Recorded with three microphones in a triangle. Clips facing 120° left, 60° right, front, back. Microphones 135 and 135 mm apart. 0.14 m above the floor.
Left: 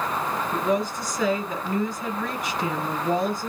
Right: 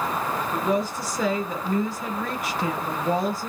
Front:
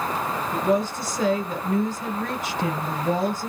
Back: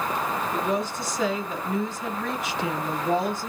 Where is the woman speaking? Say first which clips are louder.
Even, front 7 dB; 25° left, 1.5 m.